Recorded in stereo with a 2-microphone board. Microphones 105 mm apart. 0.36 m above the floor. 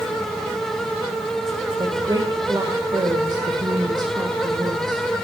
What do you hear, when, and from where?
1.8 s a woman speaking: 45° right (ahead or behind), 1.8 m